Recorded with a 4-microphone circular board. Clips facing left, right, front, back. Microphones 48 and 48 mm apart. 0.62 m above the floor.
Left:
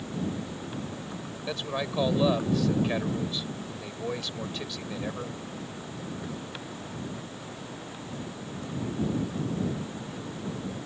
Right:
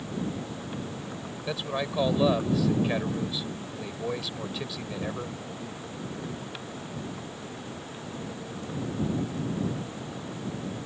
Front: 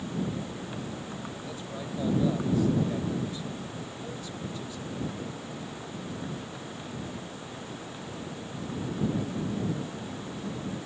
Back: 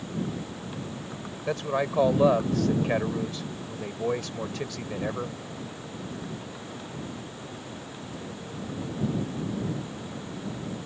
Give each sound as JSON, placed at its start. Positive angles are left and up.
{"t": 1.5, "sound": "a man speaking", "azimuth_deg": -175}